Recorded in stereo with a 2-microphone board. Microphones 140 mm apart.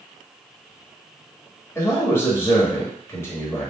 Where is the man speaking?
20° left (ahead or behind), 1.0 m.